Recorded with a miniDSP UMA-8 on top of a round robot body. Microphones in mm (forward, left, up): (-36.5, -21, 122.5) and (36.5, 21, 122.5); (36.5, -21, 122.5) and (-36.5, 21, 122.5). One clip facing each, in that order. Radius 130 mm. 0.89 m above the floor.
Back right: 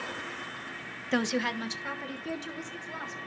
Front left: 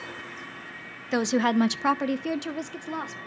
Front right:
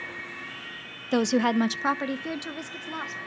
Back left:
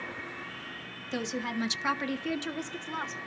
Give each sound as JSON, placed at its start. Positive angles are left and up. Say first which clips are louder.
{"t": 1.1, "sound": "a woman speaking", "louder": "front left 6 dB, front right 11 dB", "azimuth_deg": -55, "distance_m": 0.7}